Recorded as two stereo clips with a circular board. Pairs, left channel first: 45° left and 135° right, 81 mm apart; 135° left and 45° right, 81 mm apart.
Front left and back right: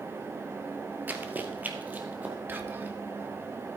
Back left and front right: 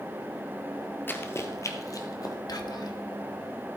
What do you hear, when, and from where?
1.1 s running footsteps: straight behind, 1.0 m; by 2.4 s 160° left, 1.8 m
2.5 s whispering: 165° left, 1.3 m